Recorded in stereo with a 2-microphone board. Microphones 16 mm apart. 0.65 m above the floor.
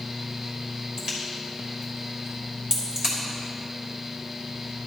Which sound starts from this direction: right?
A crack, at 1.0 s.